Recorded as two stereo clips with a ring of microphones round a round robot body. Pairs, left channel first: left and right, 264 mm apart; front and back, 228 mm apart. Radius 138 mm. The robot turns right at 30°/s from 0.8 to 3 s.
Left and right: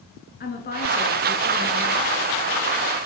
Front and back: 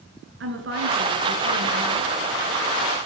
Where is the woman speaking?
145° left, 6.5 m; by 2.1 s 175° right, 6.5 m.